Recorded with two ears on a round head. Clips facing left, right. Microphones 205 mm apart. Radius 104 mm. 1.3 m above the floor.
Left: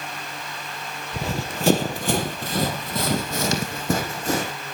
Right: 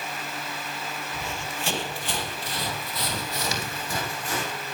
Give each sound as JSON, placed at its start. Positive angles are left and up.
{"t": 1.1, "sound": "running footsteps", "side_deg": 30, "distance_m": 1.5}